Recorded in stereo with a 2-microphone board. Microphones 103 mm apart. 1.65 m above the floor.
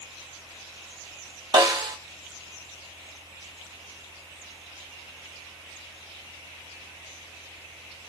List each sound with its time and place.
1.5 s a snare drum: 40° right (ahead or behind), 0.9 m